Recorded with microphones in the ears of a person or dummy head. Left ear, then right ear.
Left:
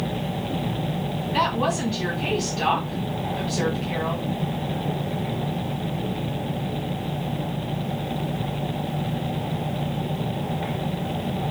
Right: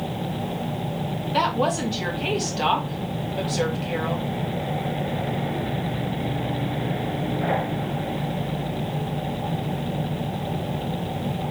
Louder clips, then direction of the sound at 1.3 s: Right 1 dB; 20° right (ahead or behind).